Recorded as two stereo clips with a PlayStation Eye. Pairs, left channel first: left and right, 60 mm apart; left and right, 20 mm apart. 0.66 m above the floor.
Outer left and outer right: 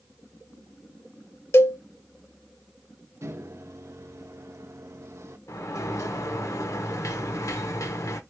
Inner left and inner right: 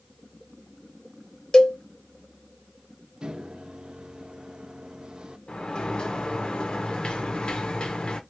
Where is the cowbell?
45° left (ahead or behind), 0.7 m.